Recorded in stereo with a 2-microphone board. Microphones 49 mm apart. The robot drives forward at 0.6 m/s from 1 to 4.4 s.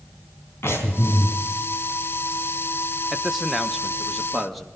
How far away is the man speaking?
About 0.6 m.